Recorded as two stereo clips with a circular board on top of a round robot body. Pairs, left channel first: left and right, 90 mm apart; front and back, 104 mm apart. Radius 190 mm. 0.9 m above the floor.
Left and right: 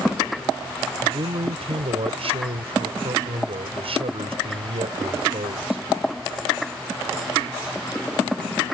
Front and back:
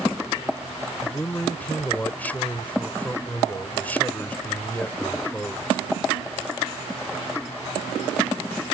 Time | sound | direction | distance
1.0 | a man speaking | 75° right | ?